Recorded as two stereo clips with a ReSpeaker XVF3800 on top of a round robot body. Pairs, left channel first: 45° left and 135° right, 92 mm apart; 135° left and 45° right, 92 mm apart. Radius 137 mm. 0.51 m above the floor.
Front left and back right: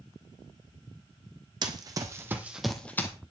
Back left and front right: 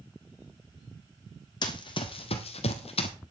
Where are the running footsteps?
Straight behind, 1.5 m; by 3.1 s 110° left, 1.0 m.